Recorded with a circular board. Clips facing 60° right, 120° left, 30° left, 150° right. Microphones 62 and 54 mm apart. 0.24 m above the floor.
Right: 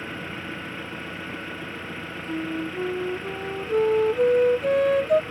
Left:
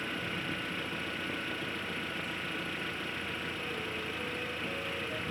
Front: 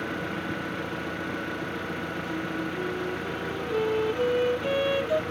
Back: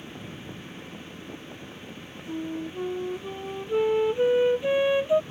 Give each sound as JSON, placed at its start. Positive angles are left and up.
{"t": 0.0, "sound": "an engine running", "azimuth_deg": 15}
{"t": 2.3, "sound": "a flute", "azimuth_deg": -80}